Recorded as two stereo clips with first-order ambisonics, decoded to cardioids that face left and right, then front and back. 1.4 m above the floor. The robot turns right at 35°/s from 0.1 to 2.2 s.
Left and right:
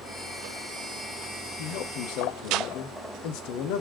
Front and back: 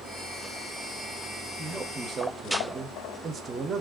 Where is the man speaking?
85° left, 0.6 m; by 3.8 s 110° left, 0.6 m.